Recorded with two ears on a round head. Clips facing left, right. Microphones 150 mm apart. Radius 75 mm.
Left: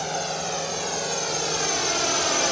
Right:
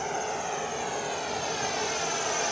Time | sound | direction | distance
0.0 | a drone | 45° left (ahead or behind) | ?